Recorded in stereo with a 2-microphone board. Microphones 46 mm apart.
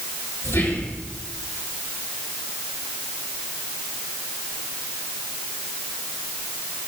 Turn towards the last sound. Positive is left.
turn(degrees=60)  # may be behind; listen again after turning